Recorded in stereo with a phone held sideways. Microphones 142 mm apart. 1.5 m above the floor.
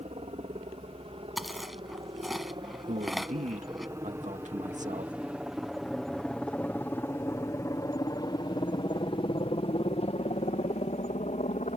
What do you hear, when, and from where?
0.0 s a helicopter: 50° right (ahead or behind); by 11.8 s 60° left (ahead or behind)
1.4 s chewing: centre (ahead or behind)
2.9 s a man speaking: 60° right (ahead or behind)